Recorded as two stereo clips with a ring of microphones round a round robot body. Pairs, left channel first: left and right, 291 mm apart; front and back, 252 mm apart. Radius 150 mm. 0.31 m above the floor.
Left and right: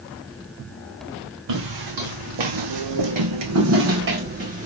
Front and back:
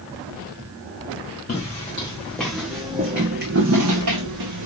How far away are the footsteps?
About 1.3 m.